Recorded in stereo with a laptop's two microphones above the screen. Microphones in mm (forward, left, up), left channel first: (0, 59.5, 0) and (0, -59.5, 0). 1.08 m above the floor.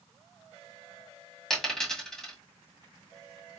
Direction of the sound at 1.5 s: 5° left (ahead or behind).